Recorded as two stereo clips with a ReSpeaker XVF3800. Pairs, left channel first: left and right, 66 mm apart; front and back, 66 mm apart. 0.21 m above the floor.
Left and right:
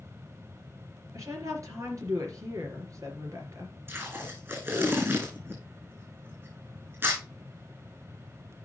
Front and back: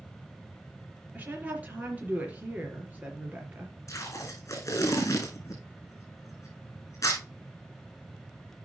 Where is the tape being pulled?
40° right, 3 m.